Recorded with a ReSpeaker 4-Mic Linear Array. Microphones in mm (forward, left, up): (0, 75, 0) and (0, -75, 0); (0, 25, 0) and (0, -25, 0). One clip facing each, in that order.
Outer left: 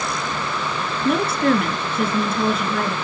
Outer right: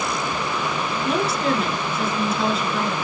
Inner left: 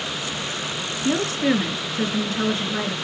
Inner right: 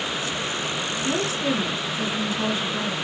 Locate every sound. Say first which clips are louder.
1.1 s a woman speaking: outer left 4 dB, inner left 5 dB; 50° left (ahead or behind), 2.5 m